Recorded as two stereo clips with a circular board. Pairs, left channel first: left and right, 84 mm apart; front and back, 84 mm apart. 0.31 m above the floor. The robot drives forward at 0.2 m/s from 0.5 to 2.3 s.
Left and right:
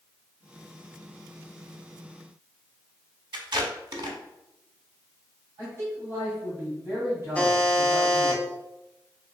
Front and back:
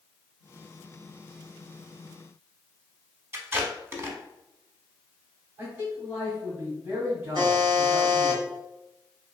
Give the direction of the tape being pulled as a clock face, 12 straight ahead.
4 o'clock.